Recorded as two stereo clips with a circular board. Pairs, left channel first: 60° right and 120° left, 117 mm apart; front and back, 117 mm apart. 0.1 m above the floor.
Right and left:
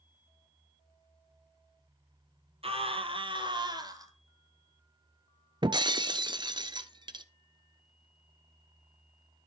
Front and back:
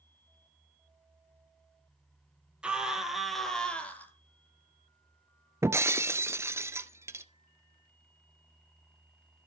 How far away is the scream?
About 3 m.